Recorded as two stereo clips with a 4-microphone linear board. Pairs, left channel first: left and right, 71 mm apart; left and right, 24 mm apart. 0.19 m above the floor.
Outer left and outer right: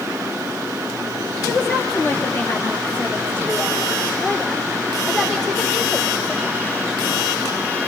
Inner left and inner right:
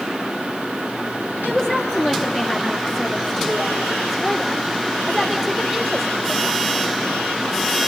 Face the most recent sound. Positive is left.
turn(degrees=0)  # may be behind; listen again after turning